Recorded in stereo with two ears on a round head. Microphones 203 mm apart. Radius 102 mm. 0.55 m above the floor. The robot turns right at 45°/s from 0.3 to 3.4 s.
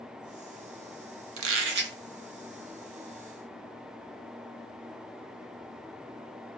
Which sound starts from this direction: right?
A squeak, at 1.4 s.